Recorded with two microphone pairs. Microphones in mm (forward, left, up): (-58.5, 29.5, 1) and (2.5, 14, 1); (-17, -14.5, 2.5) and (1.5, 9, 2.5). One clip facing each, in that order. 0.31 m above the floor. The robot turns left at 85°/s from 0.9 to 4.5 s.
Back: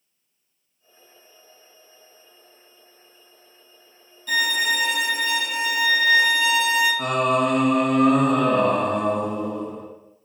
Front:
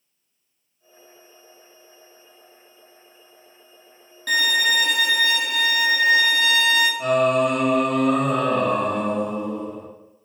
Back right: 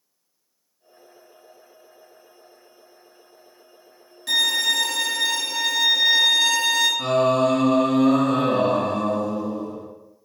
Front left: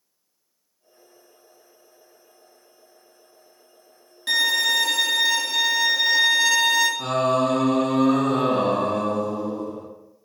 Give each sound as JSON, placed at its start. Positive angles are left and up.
{"t": 4.3, "sound": "a violin", "azimuth_deg": -10, "distance_m": 1.0}
{"t": 7.0, "sound": "singing", "azimuth_deg": 155, "distance_m": 0.8}